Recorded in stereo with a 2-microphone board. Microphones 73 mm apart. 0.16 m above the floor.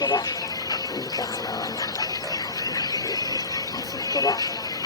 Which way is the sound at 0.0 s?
55° left (ahead or behind).